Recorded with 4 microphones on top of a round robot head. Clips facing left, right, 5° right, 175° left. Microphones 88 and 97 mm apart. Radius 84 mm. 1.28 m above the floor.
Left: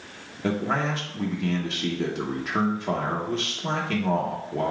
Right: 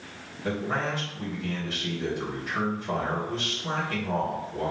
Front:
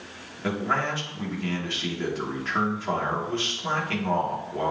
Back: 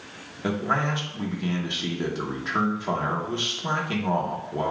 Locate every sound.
0.4 s a man speaking: 100° left, 0.9 m